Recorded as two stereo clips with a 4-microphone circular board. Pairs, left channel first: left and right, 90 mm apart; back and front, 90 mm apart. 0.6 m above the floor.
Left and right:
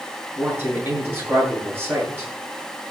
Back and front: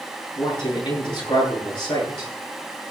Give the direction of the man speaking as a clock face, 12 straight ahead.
5 o'clock.